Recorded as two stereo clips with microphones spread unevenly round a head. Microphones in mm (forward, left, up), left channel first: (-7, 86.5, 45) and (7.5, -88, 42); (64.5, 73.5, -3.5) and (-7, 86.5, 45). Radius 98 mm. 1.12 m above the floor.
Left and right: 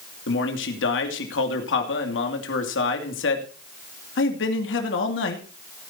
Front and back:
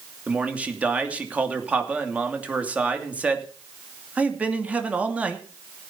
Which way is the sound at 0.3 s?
90° left.